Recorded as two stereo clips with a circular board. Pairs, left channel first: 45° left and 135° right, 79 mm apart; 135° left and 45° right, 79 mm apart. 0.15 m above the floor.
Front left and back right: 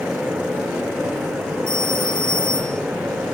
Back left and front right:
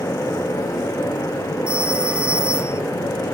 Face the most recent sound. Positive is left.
turn(degrees=30)